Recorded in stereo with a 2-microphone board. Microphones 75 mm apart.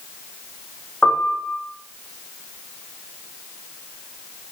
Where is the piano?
15° left (ahead or behind), 3 m.